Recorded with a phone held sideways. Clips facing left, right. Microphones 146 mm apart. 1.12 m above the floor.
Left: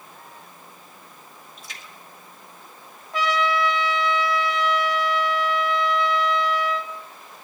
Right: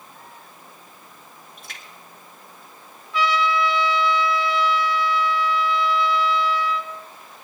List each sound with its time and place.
1.6 s a splash: 55° right (ahead or behind), 2 m
3.1 s a trumpet: 45° left (ahead or behind), 1.2 m